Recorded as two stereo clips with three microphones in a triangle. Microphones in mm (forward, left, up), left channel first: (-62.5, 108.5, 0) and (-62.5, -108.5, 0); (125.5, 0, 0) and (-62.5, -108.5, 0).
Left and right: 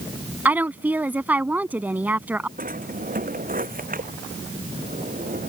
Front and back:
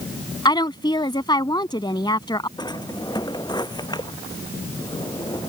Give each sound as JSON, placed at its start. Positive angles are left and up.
{"t": 0.5, "sound": "a woman speaking", "azimuth_deg": -15}
{"t": 2.6, "sound": "a drawer", "azimuth_deg": -40}